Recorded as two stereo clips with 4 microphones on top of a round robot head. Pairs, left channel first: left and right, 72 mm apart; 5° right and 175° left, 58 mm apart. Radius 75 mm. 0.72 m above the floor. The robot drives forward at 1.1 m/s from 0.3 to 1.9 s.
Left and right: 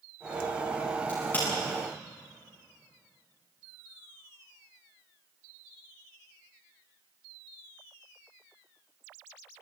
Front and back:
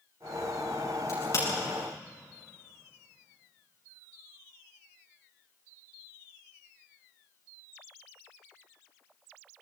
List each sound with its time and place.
1.1 s a crack: 20° left, 10 m